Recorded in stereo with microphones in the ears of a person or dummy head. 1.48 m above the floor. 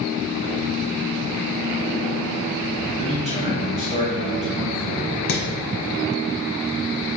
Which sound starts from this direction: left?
Hammering, at 5.3 s.